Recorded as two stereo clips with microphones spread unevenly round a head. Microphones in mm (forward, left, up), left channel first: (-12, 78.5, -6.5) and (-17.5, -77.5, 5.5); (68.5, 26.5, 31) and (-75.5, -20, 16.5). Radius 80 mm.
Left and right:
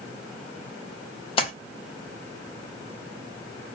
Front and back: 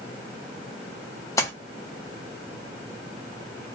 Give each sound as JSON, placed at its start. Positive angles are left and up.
{"t": 1.4, "sound": "a splash", "azimuth_deg": 60, "distance_m": 0.7}